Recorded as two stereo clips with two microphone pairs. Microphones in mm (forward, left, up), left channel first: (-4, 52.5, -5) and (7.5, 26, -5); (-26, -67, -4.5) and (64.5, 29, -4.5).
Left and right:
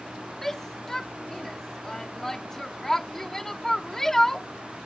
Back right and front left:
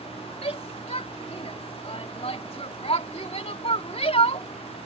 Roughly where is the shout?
Behind.